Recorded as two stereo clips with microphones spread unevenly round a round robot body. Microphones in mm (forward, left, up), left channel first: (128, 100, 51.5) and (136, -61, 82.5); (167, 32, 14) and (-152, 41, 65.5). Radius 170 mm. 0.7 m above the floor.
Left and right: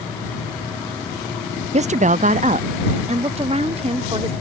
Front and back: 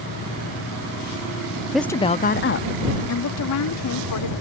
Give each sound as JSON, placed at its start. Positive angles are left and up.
{"t": 1.7, "sound": "a woman speaking", "azimuth_deg": -75}